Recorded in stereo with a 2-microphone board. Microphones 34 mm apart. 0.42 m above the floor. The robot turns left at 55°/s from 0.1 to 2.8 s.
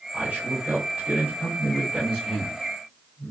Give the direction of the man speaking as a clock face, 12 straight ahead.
2 o'clock.